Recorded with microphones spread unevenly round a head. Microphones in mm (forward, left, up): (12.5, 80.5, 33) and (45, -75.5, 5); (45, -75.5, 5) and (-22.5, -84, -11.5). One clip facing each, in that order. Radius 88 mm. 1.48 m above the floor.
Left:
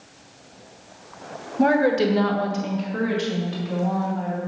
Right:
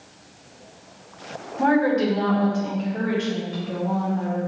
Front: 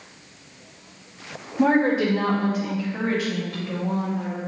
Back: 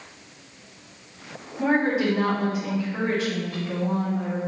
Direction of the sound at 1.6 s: 50° left.